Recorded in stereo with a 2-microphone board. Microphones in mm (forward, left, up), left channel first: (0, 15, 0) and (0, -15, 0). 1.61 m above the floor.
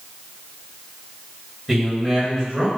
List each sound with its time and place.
1.7 s a man speaking: 5° left (ahead or behind), 1.5 m